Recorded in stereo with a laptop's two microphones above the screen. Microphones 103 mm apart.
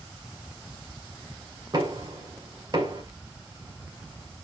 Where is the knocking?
45° right (ahead or behind), 2.5 m.